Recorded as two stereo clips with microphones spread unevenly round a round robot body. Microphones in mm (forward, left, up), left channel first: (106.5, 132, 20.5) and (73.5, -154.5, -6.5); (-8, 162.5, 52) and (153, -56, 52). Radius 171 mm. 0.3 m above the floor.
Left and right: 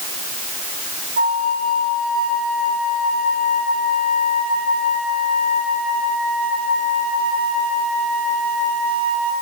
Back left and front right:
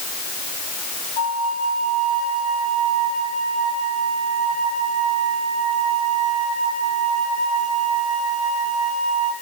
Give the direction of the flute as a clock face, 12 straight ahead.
5 o'clock.